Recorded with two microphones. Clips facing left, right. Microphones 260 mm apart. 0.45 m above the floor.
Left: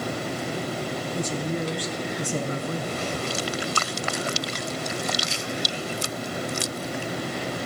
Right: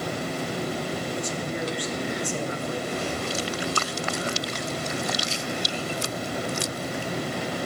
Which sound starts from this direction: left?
A woman speaking, at 1.1 s.